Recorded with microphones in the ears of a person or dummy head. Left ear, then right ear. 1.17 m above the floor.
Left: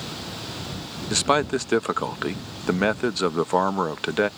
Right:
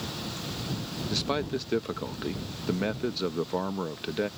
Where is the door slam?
No door slam in this recording.